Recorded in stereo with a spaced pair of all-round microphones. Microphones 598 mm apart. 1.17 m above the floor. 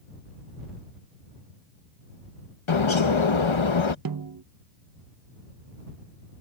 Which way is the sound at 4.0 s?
40° right (ahead or behind).